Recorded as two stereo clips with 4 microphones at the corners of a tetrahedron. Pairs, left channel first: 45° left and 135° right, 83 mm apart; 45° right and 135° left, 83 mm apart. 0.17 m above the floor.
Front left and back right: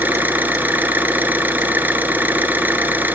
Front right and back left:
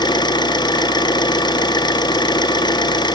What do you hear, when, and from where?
0.0 s an engine running: 70° right, 0.8 m